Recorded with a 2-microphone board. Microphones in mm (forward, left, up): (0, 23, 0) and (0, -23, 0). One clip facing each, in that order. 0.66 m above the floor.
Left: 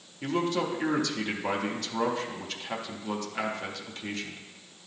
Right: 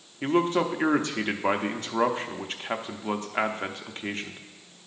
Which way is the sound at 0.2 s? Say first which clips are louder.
Right 5 dB; 35° right (ahead or behind).